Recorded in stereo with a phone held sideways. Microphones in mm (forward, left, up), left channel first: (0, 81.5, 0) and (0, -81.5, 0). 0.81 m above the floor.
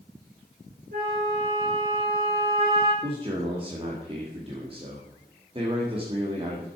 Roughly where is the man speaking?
Right.